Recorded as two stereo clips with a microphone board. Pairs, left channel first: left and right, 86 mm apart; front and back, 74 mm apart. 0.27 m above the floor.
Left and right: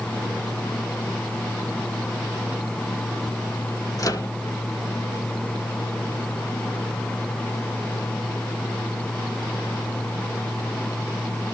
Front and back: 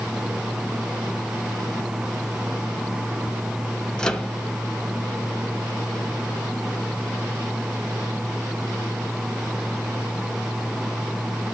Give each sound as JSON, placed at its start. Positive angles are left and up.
{"t": 4.0, "sound": "a microwave", "azimuth_deg": 75, "distance_m": 1.0}